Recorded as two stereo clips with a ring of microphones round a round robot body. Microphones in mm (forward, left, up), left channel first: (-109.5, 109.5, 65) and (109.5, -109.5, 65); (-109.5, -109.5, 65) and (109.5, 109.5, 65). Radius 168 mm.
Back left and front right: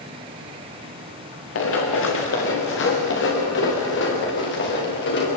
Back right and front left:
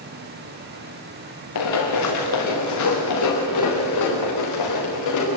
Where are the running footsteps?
175° right, 5 m; by 5.3 s 165° right, 7.5 m.